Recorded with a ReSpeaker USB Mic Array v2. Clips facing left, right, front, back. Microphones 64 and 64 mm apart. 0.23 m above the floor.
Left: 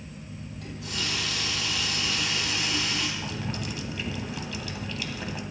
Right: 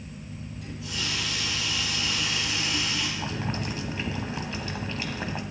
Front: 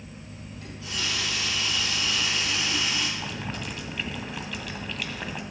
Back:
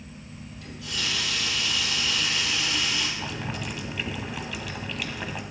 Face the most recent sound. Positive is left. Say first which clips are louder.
# right 2 dB, back 1 dB
turn(degrees=-95)